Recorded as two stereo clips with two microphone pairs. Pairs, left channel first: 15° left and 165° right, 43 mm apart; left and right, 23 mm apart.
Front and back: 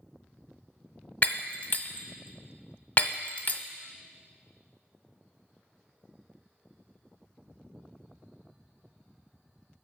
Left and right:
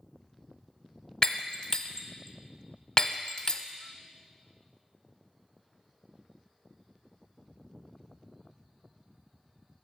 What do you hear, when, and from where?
1.2 s breaking glass: 55° left, 0.7 m